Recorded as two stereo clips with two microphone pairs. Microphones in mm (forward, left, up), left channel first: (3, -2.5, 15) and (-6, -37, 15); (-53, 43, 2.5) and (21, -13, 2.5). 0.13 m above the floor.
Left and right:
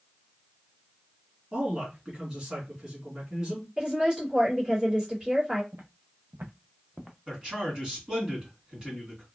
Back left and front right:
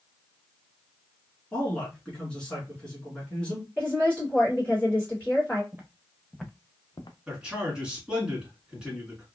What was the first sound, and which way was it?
A man speaking, 155° right.